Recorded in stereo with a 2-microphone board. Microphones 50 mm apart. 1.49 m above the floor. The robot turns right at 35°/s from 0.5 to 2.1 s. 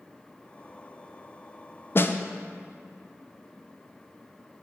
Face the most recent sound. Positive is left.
turn(degrees=45)  # may be behind; listen again after turning